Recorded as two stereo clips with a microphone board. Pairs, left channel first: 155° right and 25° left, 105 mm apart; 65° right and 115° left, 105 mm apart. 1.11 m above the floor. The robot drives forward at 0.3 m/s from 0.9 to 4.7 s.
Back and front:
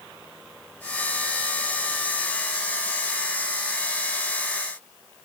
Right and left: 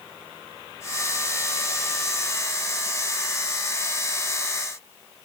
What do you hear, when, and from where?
Only background noise.